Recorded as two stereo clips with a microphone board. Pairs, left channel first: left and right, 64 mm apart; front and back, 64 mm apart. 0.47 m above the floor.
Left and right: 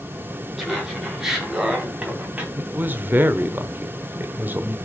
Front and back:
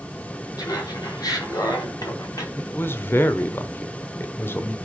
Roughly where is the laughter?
Ahead.